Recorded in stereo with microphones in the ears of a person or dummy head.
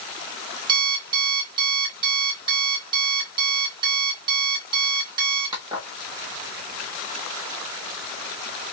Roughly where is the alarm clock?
Right.